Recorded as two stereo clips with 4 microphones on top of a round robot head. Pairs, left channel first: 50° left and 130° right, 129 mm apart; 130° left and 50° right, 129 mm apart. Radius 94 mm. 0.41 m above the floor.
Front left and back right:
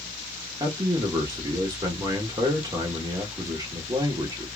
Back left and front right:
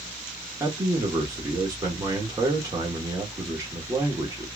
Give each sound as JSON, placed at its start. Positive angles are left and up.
{"t": 0.6, "sound": "a man speaking", "azimuth_deg": -90, "distance_m": 1.2}